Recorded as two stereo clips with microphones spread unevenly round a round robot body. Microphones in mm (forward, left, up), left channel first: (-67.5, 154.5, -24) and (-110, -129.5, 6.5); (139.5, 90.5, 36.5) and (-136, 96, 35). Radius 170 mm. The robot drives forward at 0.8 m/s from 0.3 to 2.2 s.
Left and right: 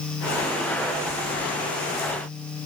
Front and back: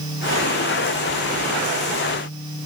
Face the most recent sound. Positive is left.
No sound to turn to.